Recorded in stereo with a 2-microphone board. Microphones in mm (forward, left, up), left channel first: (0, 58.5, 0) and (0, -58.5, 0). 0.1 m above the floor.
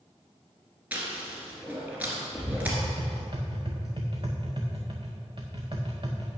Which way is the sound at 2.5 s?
45° right (ahead or behind).